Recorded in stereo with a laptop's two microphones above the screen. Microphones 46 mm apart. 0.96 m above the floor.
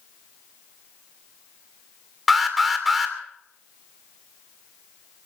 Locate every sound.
2.3 s an alarm: 5° right (ahead or behind), 2.5 m